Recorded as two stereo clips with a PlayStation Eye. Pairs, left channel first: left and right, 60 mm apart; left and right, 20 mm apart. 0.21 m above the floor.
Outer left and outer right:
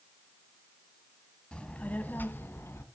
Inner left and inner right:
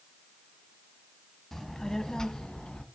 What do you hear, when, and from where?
1.5 s a child speaking: 15° left (ahead or behind), 1.2 m; by 2.9 s 45° left (ahead or behind), 1.4 m